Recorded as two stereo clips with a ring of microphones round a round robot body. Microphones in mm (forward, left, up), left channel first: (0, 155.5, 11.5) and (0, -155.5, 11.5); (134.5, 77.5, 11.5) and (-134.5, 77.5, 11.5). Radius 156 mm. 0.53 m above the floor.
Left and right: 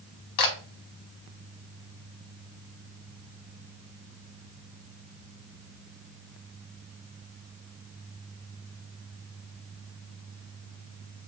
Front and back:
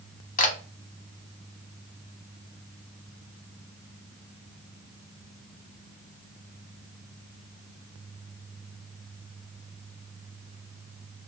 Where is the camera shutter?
60° left, 0.9 m.